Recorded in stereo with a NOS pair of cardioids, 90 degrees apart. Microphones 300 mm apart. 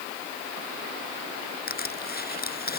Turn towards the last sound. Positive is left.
turn(degrees=30)